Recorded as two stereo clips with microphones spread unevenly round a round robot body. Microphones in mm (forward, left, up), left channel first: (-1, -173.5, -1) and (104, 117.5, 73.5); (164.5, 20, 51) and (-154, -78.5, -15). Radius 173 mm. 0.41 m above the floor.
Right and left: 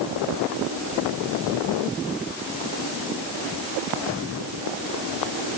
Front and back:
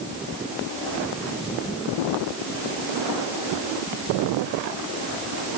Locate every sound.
Only background noise.